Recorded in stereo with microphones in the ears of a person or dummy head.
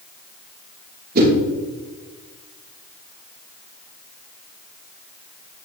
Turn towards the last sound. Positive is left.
turn(degrees=-55)  # may be behind; listen again after turning